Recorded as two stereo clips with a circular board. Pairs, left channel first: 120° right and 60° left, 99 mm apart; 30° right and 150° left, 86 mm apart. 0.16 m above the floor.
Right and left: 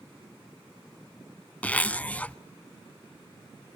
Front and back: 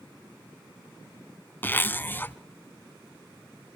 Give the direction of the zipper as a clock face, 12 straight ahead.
2 o'clock.